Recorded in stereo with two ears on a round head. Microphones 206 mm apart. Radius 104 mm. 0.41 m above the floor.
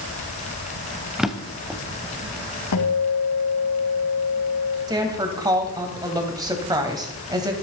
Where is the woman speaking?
15° right (ahead or behind), 2.5 m.